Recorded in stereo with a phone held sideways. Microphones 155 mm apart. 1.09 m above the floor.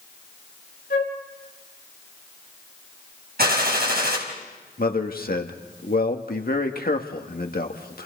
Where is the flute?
75° left (ahead or behind), 4 m.